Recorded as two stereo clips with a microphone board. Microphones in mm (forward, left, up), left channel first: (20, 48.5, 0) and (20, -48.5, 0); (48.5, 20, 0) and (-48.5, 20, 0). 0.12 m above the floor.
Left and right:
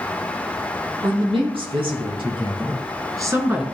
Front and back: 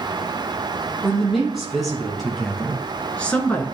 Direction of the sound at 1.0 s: 90° right.